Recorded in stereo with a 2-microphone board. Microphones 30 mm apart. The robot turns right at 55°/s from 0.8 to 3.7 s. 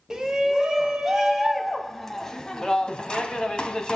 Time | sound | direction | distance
0.1 | a shout | 20° right (ahead or behind) | 1.1 m